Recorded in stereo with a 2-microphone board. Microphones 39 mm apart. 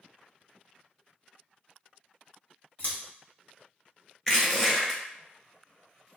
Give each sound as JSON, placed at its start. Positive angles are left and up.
{"t": 2.8, "sound": "scissors", "side_deg": 65, "distance_m": 1.8}
{"t": 4.3, "sound": "crushing", "side_deg": 15, "distance_m": 1.2}